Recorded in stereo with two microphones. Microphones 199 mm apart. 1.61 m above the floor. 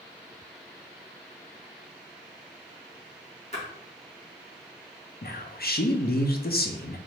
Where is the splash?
35° left (ahead or behind), 1.6 m.